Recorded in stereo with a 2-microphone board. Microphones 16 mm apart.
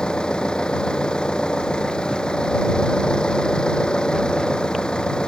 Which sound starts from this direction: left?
An engine running, at 0.0 s.